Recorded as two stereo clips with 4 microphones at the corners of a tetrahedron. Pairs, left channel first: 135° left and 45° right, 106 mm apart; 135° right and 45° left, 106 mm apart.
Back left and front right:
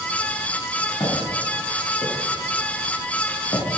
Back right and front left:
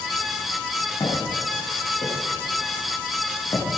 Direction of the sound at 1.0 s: Straight behind.